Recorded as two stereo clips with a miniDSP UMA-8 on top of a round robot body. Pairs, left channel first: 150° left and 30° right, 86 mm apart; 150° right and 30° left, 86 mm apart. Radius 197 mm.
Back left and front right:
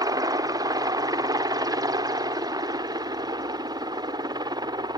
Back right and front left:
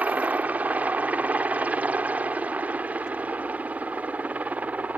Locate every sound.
0.0 s a helicopter: 35° right; by 5.0 s 40° right